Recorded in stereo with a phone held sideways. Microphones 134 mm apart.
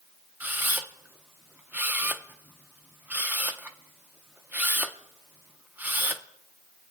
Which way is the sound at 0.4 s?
10° right (ahead or behind).